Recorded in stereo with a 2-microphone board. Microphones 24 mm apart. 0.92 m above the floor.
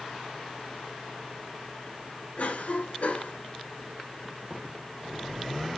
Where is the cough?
75° left (ahead or behind), 3.5 m.